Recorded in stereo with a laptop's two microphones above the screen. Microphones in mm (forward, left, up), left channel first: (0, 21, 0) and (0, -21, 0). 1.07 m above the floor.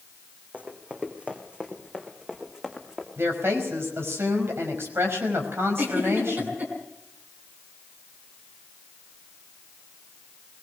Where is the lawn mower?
No lawn mower in this recording.